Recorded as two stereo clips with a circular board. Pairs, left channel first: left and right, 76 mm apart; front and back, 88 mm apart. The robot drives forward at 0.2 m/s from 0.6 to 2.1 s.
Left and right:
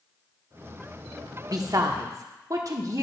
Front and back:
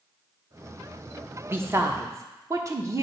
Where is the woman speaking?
120° right, 0.8 m; by 3.0 s 125° right, 0.9 m.